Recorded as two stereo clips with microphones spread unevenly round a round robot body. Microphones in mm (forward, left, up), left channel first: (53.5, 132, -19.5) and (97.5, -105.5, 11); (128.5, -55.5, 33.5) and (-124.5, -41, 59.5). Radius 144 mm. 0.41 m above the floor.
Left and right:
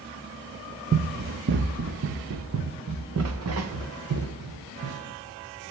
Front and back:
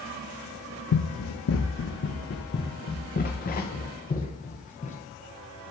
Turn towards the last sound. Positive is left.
turn(degrees=-65)